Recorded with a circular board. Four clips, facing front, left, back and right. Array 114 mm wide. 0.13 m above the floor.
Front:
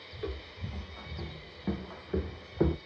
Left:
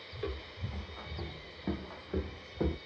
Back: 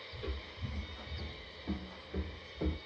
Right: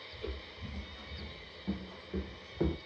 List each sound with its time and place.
0.1 s footsteps: 60° left, 1.5 m; by 2.8 s 5° right, 0.5 m